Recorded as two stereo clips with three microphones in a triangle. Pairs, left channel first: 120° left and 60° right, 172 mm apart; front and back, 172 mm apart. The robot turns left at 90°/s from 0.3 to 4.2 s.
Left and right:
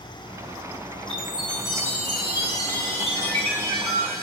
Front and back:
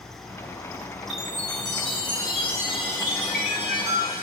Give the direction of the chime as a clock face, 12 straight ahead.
4 o'clock.